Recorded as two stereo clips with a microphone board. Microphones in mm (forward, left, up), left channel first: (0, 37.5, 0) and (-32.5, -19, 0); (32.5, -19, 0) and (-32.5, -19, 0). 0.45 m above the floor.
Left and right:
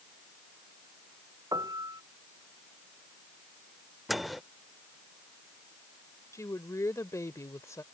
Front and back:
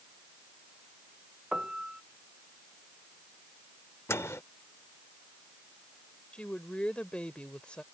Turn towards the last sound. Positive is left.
turn(degrees=70)